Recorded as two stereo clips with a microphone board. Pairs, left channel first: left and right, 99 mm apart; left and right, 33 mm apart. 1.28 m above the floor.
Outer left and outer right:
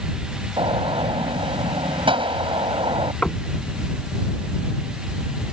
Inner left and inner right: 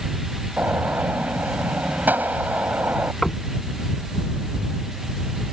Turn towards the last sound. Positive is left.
turn(degrees=10)  # may be behind; listen again after turning